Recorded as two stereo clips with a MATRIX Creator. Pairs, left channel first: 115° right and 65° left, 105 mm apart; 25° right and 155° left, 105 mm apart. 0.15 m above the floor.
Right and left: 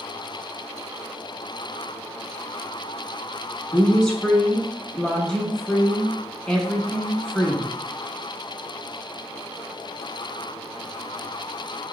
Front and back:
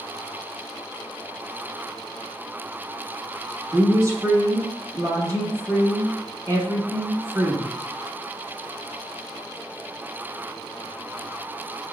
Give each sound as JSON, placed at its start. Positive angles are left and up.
{"t": 3.7, "sound": "a woman speaking", "azimuth_deg": 170, "distance_m": 1.2}